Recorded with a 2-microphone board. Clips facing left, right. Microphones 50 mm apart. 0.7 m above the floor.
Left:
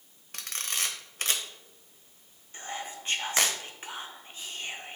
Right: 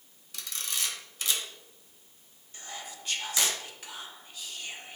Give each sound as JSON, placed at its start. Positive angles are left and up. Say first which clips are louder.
{"t": 0.3, "sound": "a camera shutter", "louder": "left 2 dB", "side_deg": 50, "distance_m": 1.1}
{"t": 2.5, "sound": "whispering", "louder": "left 5 dB", "side_deg": 30, "distance_m": 0.7}